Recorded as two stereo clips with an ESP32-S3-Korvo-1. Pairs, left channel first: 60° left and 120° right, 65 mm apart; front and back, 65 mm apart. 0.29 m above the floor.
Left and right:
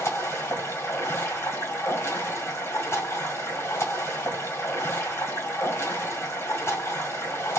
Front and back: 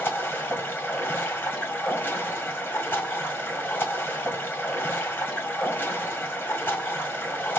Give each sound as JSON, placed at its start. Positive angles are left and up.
{"t": 0.0, "sound": "running water", "azimuth_deg": 45, "distance_m": 1.5}